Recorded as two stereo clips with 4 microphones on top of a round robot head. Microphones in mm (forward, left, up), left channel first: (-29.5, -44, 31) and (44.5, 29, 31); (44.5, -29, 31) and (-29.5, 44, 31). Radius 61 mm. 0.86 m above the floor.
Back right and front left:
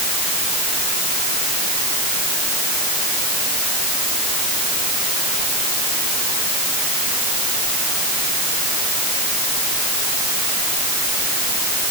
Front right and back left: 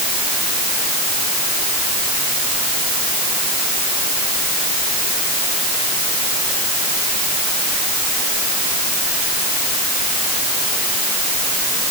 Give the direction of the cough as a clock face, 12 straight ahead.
I don't hear a cough.